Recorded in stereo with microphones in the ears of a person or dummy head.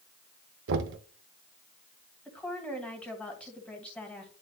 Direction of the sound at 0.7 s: 65° right (ahead or behind).